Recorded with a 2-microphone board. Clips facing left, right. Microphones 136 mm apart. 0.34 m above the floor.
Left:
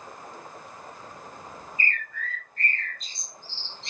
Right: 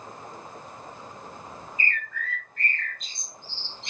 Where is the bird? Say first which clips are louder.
Even; 35° left (ahead or behind), 1.4 m.